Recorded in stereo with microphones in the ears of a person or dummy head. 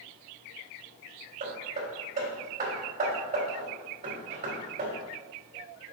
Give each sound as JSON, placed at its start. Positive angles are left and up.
{"t": 1.4, "sound": "hammering", "side_deg": -45, "distance_m": 2.5}